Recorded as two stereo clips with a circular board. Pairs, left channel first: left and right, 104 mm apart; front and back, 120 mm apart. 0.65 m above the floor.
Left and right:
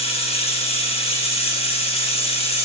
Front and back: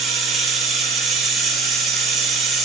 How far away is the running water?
About 1.3 m.